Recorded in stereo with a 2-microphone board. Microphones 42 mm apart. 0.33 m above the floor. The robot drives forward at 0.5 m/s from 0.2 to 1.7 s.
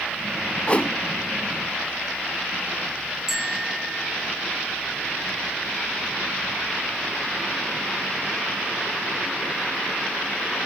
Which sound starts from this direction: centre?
A bicycle bell, at 3.3 s.